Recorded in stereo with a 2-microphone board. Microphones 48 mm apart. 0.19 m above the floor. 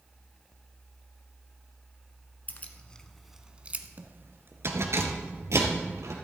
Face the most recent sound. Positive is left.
turn(degrees=-75)  # may be behind; listen again after turning